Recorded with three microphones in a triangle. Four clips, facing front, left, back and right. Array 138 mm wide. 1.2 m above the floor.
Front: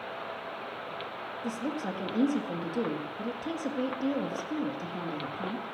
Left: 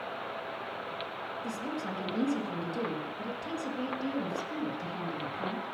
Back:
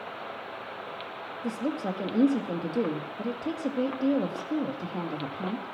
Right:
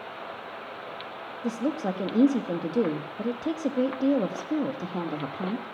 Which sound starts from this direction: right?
A woman speaking, at 1.4 s.